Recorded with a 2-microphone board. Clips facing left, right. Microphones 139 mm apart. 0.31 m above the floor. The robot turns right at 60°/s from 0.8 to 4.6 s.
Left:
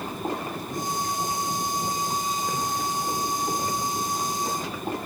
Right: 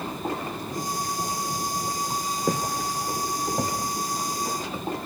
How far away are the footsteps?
About 3 m.